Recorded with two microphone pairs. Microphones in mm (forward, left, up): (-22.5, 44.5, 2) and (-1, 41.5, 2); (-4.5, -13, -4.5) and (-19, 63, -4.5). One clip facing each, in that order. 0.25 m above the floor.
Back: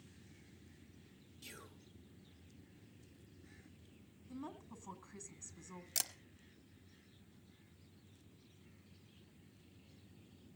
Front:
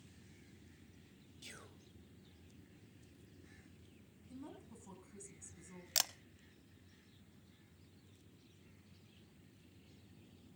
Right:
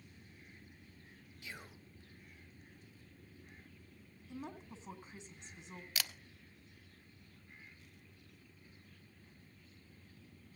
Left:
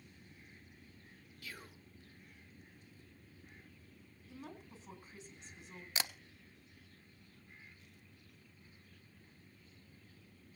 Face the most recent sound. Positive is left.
turn(degrees=45)